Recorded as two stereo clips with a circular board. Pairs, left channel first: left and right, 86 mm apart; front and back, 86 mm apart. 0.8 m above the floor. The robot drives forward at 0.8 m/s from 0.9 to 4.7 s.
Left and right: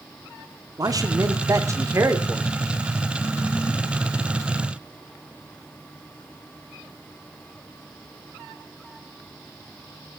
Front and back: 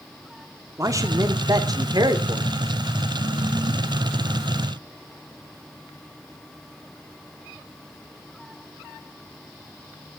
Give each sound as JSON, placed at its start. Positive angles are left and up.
{"t": 0.8, "sound": "a man speaking", "azimuth_deg": -130, "distance_m": 2.5}